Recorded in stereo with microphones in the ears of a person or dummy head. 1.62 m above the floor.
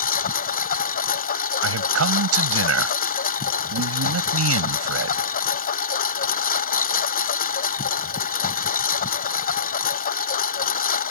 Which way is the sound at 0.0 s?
50° left (ahead or behind).